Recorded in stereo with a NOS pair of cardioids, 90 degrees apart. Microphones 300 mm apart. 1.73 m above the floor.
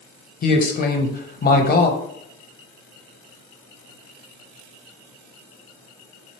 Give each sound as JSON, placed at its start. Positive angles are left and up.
{"t": 0.4, "sound": "a man speaking", "azimuth_deg": 30, "distance_m": 0.8}